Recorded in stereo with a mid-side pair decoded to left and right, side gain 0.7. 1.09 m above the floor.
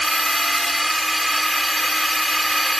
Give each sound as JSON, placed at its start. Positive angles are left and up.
{"t": 0.0, "sound": "a drone", "azimuth_deg": -5}